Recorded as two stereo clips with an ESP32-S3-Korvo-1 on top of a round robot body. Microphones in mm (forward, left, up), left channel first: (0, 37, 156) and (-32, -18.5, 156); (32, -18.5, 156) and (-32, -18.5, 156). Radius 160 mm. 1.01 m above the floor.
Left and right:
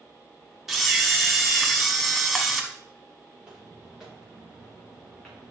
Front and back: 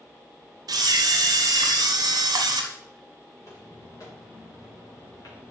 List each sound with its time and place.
0.7 s a camera shutter: 155° left, 1.0 m
3.4 s footsteps: 40° right, 6 m; by 5.5 s 25° right, 5 m